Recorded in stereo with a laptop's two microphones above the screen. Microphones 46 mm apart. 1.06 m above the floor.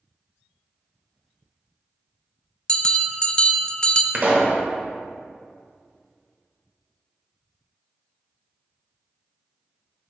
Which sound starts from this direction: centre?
A bell, at 2.7 s.